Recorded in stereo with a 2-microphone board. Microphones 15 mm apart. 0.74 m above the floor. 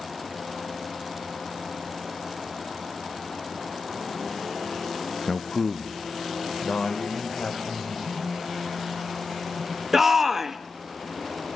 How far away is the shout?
About 0.9 m.